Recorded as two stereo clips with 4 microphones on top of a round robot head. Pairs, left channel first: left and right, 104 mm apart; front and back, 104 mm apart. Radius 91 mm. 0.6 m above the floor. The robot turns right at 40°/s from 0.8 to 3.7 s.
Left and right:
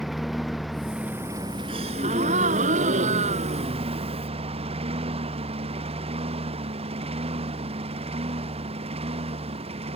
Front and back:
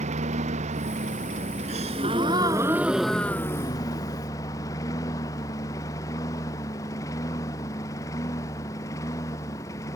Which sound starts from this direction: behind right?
A gasp, at 1.7 s.